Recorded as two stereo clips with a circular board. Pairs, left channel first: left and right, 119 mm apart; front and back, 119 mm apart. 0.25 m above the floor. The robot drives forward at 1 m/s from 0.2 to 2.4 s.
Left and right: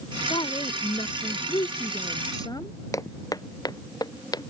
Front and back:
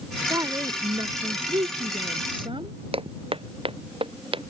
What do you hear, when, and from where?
0.3 s a woman speaking: 125° left; by 2.8 s 145° left
2.9 s footsteps: 150° left; by 4.5 s 145° left